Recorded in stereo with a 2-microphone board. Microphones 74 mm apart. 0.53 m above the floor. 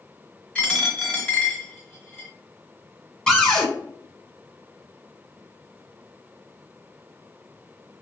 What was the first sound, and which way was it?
A dropped coin, 15° left (ahead or behind).